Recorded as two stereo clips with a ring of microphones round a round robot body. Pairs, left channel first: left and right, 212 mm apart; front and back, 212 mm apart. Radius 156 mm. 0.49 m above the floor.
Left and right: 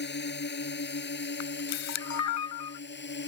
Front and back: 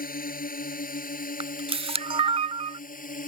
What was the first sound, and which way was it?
A drone, 50° left.